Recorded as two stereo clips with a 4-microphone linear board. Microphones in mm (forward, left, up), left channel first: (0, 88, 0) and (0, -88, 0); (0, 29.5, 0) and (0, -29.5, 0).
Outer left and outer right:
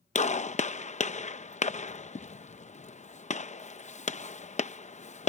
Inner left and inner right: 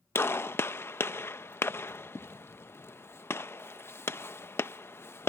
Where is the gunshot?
45° left (ahead or behind).